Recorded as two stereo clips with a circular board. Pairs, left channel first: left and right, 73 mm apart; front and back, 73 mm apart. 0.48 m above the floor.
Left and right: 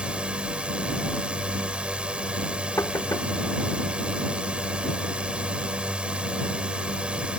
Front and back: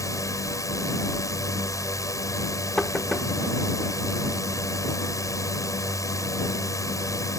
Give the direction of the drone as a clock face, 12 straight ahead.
1 o'clock.